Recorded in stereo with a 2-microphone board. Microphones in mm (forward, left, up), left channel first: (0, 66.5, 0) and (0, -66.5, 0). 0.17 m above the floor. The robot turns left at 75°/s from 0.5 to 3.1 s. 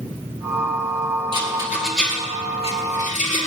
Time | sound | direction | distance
1.3 | a rattle | 40° right (ahead or behind) | 2 m